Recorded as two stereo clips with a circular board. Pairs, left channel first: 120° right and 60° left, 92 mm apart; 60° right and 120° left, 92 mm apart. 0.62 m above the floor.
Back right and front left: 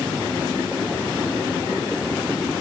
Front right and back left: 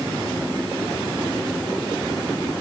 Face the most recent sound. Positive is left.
No sound to turn to.